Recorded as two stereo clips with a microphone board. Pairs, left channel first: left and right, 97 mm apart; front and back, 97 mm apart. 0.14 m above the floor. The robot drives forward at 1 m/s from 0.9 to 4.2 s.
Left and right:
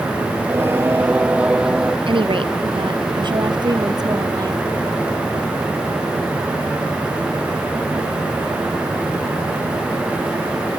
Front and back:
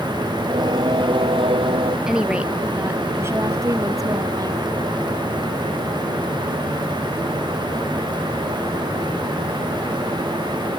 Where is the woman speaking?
95° right; by 4.6 s 135° right.